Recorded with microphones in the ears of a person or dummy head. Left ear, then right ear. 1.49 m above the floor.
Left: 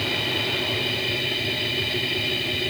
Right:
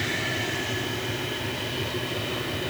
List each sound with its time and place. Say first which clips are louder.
0.0 s a machine running: left 3 dB; 55° left (ahead or behind)